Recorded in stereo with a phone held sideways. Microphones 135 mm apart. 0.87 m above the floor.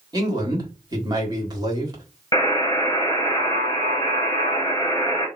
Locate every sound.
0.1 s a man speaking: 30° right (ahead or behind), 1.5 m
2.3 s a buzzer: 25° left (ahead or behind), 1.7 m